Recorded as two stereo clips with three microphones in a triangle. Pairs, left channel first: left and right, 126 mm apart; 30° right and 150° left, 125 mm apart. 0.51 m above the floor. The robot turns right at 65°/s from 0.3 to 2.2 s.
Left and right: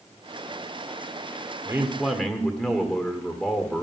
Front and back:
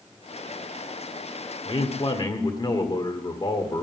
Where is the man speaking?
35° right, 1.6 m; by 3.8 s 5° left, 1.6 m.